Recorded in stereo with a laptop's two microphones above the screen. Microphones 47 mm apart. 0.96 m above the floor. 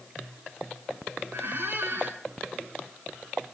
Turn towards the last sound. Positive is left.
turn(degrees=-50)  # may be behind; listen again after turning